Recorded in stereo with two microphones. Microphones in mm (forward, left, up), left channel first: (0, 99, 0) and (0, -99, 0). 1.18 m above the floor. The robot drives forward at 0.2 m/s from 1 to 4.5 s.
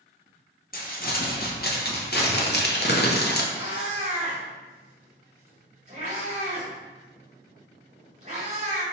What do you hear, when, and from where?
0.7 s crumpling: 45° left (ahead or behind), 0.8 m; by 3.4 s 55° left (ahead or behind), 0.7 m
3.5 s a cat meowing: 35° right (ahead or behind), 1.8 m